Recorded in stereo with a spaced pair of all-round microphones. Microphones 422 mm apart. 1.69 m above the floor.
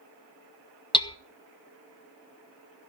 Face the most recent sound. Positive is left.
turn(degrees=10)  # may be behind; listen again after turning